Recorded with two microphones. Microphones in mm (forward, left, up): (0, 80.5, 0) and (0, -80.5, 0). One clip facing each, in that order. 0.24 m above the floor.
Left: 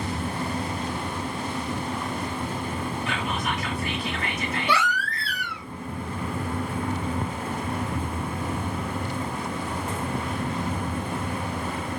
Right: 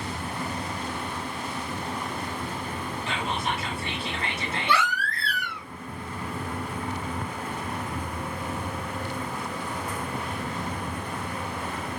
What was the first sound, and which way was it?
Whispering, 30° right (ahead or behind).